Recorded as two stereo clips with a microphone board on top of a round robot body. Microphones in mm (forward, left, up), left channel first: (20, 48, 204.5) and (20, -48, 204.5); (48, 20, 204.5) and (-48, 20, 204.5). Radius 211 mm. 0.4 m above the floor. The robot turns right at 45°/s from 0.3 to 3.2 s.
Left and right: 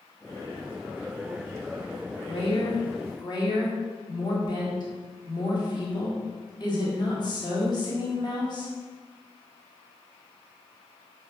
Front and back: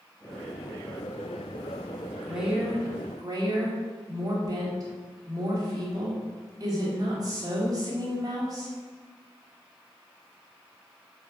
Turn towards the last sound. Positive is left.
turn(degrees=130)